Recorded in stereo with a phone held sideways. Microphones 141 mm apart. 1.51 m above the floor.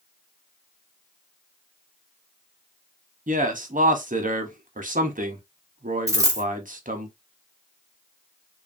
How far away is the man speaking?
About 0.7 m.